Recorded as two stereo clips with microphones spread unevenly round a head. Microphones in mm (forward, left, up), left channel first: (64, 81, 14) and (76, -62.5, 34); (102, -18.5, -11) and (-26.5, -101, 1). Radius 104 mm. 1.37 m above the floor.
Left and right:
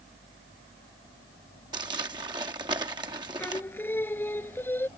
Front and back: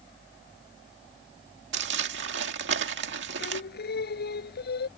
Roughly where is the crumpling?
Behind right.